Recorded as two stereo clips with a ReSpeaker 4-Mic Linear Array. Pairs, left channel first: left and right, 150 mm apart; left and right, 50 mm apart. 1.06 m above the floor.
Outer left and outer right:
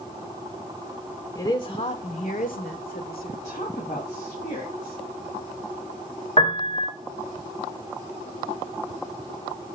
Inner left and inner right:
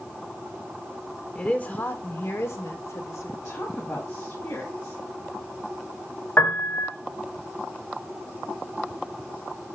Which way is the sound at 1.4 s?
25° left (ahead or behind).